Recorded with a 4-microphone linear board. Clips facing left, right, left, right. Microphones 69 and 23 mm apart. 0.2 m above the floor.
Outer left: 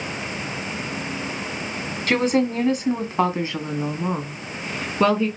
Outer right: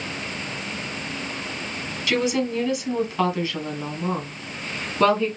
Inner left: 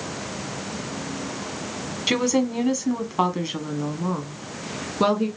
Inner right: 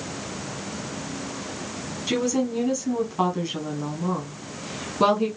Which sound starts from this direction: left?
A woman speaking, at 2.1 s.